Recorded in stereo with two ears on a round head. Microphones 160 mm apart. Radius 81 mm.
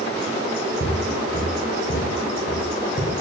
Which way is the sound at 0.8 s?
55° left (ahead or behind).